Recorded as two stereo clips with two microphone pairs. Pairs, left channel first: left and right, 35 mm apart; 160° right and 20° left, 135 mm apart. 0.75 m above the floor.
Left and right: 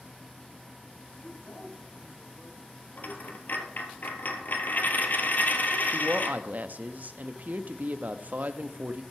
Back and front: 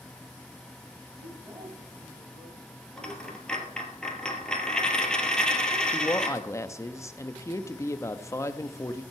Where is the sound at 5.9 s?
90° right, 0.8 m.